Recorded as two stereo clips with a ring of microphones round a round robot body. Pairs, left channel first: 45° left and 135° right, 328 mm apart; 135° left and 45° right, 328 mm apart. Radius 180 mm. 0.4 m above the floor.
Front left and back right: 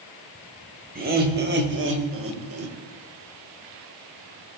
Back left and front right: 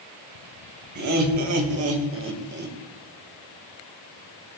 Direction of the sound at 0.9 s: 70° right.